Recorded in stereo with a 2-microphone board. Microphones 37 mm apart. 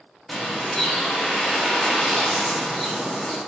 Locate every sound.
0.3 s a bird: 10° left (ahead or behind), 0.9 m